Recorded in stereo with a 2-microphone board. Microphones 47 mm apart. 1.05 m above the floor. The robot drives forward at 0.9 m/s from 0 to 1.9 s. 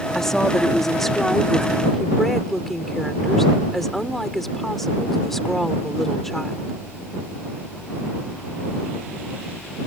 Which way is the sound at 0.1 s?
10° left (ahead or behind).